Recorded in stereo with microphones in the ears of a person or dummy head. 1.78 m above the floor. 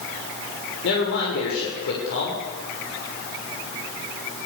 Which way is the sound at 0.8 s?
70° left (ahead or behind).